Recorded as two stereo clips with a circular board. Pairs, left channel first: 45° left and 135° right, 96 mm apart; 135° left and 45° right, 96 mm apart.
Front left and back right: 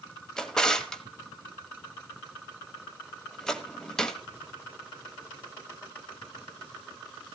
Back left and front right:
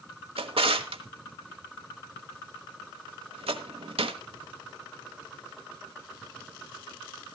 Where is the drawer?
40° right, 1.2 m.